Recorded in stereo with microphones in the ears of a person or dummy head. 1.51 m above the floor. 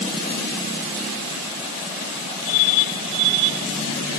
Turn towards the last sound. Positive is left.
No sound to turn to.